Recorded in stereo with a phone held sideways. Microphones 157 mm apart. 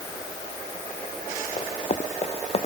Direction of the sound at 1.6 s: 40° left (ahead or behind).